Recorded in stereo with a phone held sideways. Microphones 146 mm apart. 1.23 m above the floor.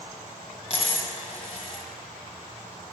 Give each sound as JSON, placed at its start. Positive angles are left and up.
{"t": 0.7, "sound": "a dropped coin", "side_deg": 45, "distance_m": 1.4}